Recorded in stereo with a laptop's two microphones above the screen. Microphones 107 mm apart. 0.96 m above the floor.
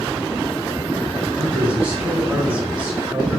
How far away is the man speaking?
About 2.5 m.